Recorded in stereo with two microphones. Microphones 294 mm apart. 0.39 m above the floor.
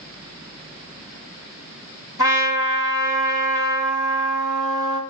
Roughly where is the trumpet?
Left.